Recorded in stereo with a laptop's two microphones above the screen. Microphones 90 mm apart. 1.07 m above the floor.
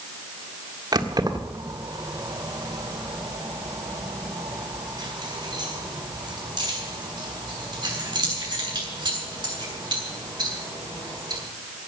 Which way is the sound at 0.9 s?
50° right (ahead or behind).